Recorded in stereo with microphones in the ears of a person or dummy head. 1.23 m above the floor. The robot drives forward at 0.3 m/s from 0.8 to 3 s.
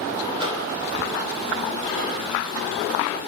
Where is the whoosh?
25° right (ahead or behind), 6 m.